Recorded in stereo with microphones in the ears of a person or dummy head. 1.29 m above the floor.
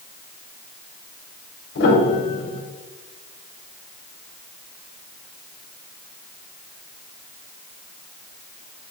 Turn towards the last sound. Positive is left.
turn(degrees=80)